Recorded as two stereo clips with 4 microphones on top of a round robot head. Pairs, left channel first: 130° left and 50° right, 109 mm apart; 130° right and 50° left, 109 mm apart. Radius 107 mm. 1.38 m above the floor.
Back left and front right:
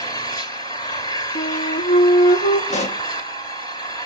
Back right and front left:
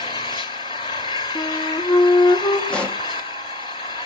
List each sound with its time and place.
0.0 s an engine running: 175° right, 1.3 m
1.4 s a flute: 155° left, 1.3 m
2.7 s a pop: 150° left, 1.1 m